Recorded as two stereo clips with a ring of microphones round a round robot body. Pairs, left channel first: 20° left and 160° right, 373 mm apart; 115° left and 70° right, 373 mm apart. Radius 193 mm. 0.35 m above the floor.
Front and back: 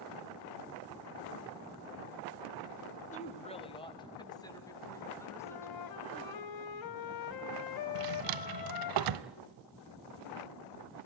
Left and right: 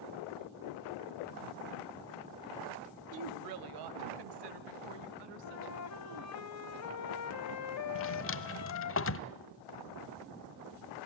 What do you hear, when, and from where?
3.1 s a woman speaking: 45° right, 1.3 m; by 6.4 s 60° right, 4 m
5.4 s a flute: 60° left, 0.7 m
8.0 s a drawer: 170° left, 0.8 m